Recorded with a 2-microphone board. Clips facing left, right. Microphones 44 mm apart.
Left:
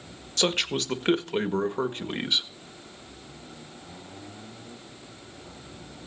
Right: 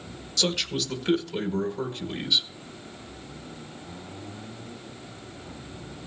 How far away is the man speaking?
About 1.6 m.